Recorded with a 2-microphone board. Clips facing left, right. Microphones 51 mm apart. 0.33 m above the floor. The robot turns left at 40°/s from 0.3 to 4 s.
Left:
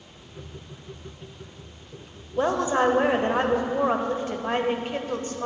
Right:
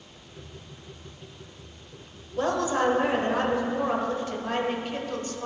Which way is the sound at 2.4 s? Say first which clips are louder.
Left 3 dB; 135° left.